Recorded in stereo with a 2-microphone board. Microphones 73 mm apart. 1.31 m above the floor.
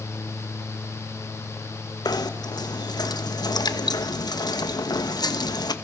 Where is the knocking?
65° left (ahead or behind), 1.1 m.